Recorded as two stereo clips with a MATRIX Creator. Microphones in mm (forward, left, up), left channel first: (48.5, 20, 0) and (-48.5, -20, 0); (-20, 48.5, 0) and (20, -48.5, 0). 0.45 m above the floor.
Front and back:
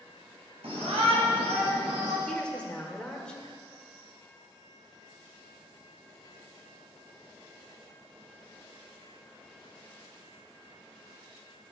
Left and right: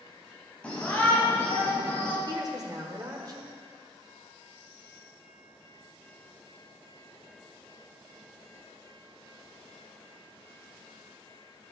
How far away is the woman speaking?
About 1.6 m.